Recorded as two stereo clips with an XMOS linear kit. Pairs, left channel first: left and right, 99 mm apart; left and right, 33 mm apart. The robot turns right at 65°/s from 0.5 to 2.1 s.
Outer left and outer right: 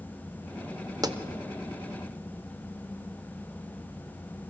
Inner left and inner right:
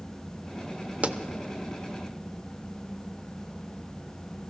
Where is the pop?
40° right (ahead or behind), 0.6 m.